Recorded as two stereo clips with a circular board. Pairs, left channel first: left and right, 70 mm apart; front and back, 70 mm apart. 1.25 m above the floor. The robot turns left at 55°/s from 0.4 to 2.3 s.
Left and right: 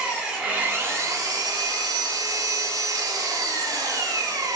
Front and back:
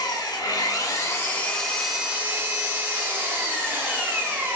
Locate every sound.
0.0 s an engine running: 10° right, 0.7 m; by 4.6 s 115° right, 0.7 m